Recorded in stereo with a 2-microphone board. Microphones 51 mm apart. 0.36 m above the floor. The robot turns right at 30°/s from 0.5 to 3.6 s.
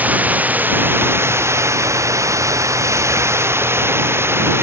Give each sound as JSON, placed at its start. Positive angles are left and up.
{"t": 0.0, "sound": "running water", "azimuth_deg": -145}